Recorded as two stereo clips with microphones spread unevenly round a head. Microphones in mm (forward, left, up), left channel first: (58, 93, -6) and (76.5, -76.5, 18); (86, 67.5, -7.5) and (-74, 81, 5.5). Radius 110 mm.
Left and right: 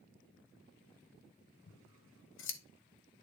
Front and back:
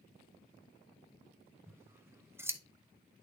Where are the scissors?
100° left, 0.8 m.